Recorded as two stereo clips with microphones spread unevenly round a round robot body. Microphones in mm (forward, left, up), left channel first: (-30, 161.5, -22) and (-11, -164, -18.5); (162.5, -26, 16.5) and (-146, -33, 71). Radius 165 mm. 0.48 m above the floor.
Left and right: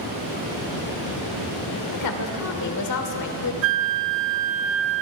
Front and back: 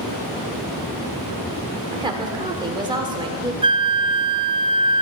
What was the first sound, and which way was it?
A woman speaking, 100° left.